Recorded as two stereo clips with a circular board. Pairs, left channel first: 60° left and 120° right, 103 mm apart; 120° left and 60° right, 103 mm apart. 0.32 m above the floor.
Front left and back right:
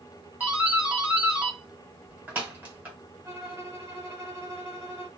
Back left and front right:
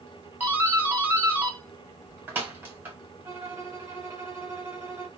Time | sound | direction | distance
0.4 | a doorbell | 75° right | 1.4 m
3.2 | a violin | 80° right | 1.3 m